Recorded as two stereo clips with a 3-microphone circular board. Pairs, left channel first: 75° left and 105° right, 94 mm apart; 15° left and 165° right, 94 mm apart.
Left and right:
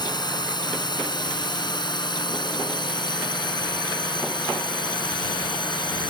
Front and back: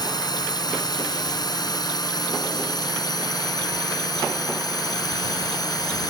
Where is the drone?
50° left; by 6.1 s 55° left.